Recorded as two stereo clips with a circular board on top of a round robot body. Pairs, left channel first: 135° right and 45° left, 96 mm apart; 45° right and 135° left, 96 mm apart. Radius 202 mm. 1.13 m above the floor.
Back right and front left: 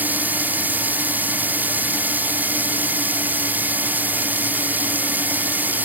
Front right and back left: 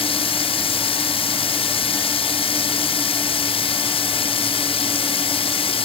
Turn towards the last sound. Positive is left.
turn(degrees=-25)